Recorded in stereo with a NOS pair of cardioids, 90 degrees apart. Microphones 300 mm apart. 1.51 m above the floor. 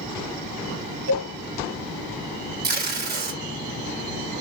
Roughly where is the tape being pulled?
Ahead right.